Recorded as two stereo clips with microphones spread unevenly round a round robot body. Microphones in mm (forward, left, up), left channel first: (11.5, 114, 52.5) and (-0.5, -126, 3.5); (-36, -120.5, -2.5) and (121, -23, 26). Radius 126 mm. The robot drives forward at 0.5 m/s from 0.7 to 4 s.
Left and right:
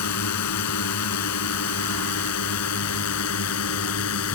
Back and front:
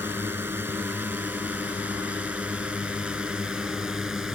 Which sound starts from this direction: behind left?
A drone, at 0.0 s.